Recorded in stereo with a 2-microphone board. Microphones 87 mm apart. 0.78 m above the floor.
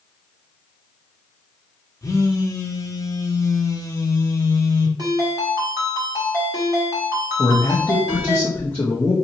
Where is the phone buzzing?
35° left (ahead or behind), 0.7 m.